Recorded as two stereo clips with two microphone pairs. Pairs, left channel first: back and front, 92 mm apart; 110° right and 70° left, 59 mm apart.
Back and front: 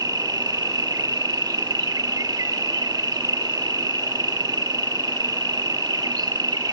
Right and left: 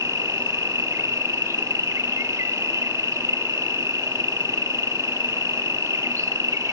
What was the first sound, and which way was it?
An insect, 45° left.